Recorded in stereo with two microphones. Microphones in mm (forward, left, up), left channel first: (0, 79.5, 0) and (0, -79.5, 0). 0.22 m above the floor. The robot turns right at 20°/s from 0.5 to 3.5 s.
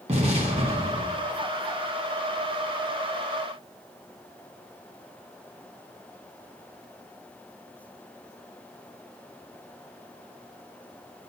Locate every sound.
0.1 s an explosion: 45° right (ahead or behind), 1.3 m; by 1.2 s 35° right (ahead or behind), 1.3 m